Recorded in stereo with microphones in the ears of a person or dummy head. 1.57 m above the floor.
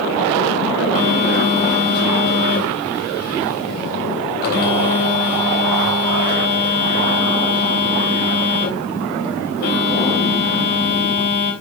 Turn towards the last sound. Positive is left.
turn(degrees=45)  # may be behind; listen again after turning